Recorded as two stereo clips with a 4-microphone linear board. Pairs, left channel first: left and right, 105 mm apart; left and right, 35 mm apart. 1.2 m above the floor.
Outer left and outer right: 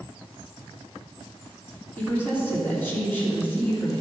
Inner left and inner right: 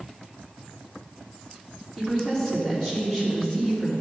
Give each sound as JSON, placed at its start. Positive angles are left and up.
{"t": 2.0, "sound": "a woman speaking", "side_deg": 20, "distance_m": 3.0}